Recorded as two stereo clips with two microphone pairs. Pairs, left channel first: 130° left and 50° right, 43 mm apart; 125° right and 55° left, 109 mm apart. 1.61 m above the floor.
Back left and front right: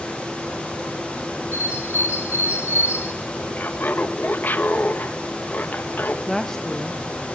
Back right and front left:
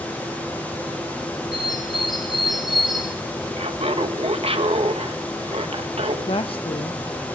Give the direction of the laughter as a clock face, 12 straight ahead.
9 o'clock.